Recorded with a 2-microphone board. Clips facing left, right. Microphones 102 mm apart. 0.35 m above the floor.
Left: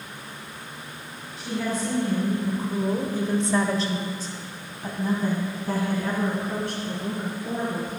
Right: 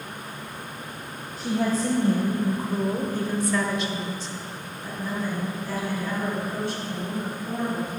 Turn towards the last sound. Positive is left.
turn(degrees=60)  # may be behind; listen again after turning